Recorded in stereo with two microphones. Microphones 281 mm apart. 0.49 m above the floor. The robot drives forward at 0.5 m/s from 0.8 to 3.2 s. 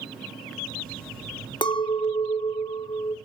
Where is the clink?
15° left (ahead or behind), 0.7 m.